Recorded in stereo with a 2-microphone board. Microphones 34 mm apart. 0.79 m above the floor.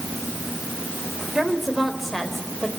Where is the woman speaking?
Centre (ahead or behind), 3 m; by 2.7 s 10° left (ahead or behind), 3 m.